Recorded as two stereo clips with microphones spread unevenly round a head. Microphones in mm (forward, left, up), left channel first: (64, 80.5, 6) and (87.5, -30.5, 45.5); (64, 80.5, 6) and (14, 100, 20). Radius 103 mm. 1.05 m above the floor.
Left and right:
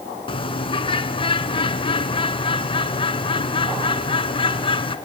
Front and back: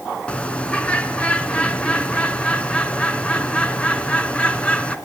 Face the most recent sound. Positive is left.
turn(degrees=55)